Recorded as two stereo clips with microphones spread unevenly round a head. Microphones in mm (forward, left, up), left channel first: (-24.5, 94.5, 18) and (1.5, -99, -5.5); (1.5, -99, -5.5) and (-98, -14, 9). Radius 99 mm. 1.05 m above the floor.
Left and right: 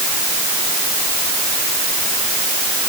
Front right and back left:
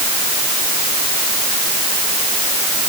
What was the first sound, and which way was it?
Only background noise.